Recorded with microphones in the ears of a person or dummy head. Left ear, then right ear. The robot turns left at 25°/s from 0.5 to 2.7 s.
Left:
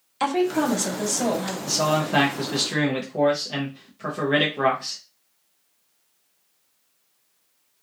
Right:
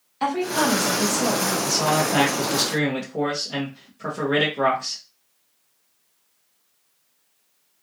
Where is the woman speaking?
80° left, 1.4 m; by 1.6 s 55° left (ahead or behind), 1.4 m.